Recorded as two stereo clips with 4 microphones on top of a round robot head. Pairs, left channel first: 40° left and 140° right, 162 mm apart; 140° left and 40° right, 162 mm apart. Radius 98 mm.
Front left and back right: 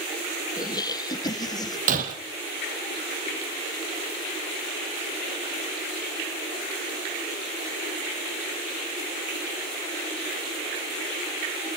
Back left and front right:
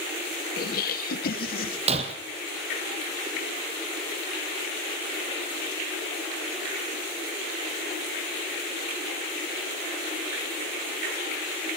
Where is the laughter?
110° left, 1.8 m.